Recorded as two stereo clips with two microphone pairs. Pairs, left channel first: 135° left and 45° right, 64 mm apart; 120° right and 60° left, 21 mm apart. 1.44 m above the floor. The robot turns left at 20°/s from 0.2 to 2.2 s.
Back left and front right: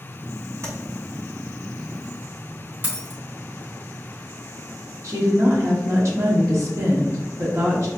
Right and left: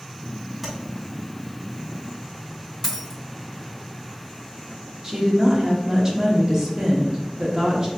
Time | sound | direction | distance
0.6 | tapping | 30° right | 1.6 m
2.8 | a dropped coin | 70° right | 1.5 m
5.0 | a woman speaking | 10° right | 1.0 m